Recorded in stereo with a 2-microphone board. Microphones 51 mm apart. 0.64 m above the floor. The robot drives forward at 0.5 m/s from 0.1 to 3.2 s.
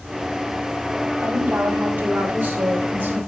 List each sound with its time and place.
1.2 s a woman speaking: 40° right (ahead or behind), 2 m; by 3.2 s 30° right (ahead or behind), 3 m